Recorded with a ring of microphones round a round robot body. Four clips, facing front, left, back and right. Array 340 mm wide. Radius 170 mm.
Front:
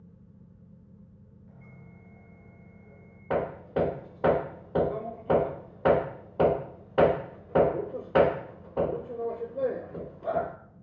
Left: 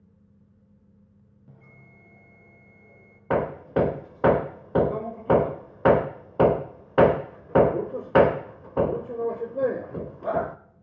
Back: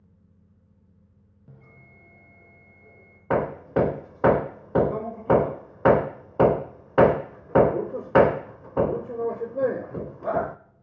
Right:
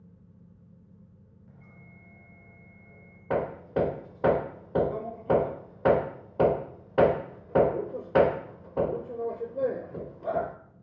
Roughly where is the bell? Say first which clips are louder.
Left 1 dB, back 1 dB; behind left.